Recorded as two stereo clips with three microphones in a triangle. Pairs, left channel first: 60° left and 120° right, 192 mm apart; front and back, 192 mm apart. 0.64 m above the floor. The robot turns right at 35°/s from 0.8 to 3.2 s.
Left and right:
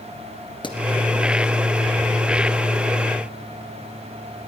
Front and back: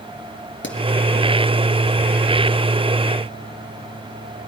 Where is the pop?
5° right, 2.5 m.